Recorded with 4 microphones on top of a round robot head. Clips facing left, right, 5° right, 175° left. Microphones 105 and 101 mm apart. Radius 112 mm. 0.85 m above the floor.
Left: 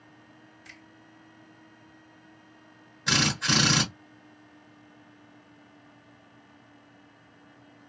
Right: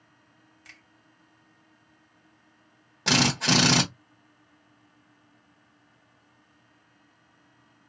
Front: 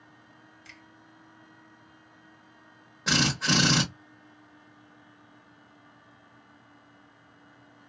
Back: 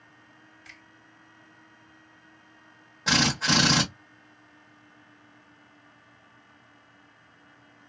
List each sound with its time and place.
0.7 s a finger snap: 60° right, 2.0 m
3.1 s a drill: 95° right, 1.2 m